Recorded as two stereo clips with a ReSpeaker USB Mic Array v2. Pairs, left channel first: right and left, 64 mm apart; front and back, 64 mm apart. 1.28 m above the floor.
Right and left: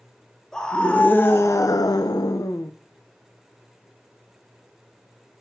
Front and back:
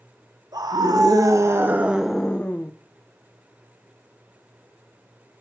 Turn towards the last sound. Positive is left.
turn(degrees=-60)